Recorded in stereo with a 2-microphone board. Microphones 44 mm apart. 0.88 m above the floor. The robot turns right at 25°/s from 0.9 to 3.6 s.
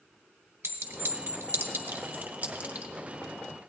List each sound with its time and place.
0.6 s a clink: 75° right (ahead or behind), 1.2 m; by 2.9 s 30° right (ahead or behind), 1.2 m